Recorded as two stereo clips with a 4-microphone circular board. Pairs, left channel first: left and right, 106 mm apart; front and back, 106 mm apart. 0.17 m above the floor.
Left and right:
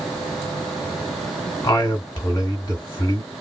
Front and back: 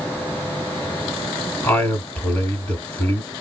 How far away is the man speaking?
About 1.5 m.